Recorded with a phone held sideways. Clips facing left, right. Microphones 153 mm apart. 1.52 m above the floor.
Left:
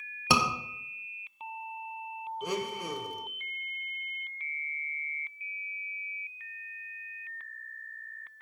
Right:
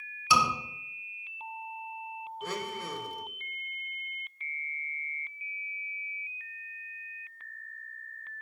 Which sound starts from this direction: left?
A scream, at 0.3 s.